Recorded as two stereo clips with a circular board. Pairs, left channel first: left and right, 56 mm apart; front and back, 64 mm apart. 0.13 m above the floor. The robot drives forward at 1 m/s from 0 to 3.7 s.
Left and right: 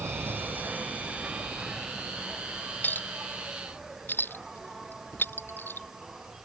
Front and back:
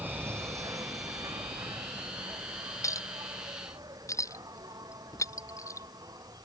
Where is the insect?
120° right; by 6.5 s 170° right.